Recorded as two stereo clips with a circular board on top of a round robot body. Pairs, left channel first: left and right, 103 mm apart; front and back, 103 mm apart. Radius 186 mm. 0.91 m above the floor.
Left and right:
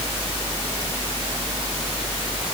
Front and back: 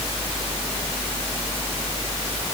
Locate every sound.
Only background noise.